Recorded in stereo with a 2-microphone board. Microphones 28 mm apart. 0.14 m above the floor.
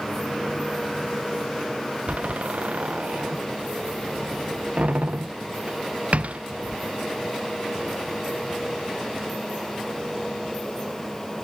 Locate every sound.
2.1 s a door slam: 60° right (ahead or behind)